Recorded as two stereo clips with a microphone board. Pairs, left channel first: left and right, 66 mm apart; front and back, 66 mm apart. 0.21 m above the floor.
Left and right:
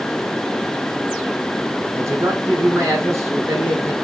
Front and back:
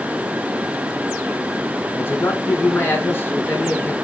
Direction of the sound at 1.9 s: 55° right.